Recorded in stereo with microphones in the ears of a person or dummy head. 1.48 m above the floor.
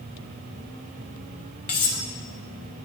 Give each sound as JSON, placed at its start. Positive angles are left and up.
{"t": 1.7, "sound": "cutlery clinking", "side_deg": 30, "distance_m": 0.9}